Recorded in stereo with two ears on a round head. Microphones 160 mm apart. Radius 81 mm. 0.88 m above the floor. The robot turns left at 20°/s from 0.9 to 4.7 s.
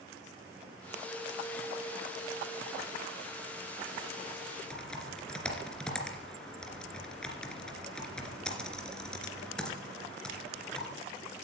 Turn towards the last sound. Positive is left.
turn(degrees=5)  # may be behind; listen again after turning